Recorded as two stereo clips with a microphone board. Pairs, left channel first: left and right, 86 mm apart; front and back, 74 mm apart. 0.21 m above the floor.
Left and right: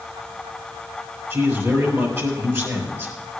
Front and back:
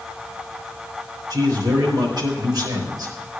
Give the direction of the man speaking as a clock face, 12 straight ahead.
5 o'clock.